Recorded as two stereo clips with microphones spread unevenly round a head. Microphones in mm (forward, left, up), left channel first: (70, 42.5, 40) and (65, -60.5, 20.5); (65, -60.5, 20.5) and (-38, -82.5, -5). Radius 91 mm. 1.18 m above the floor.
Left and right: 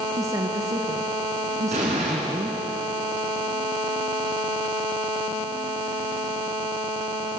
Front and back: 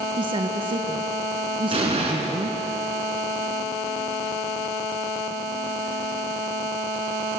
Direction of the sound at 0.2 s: 150° right.